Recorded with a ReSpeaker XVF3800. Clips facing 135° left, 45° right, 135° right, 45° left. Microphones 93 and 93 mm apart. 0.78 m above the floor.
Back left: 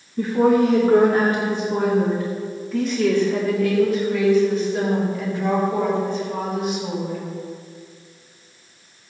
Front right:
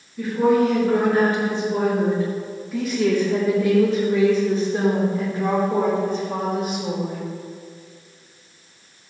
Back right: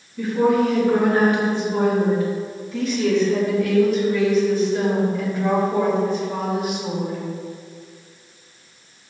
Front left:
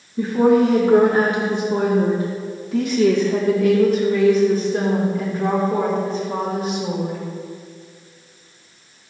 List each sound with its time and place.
0.2 s a woman speaking: 90° left, 2 m; by 7.2 s 10° right, 4 m